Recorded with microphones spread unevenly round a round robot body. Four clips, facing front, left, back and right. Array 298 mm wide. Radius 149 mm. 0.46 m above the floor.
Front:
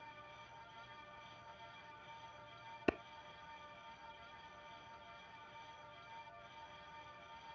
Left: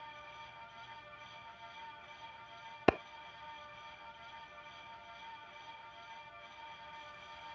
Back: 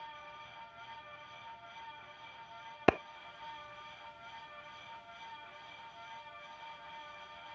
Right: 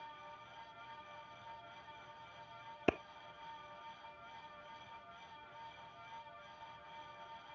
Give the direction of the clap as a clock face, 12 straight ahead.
7 o'clock.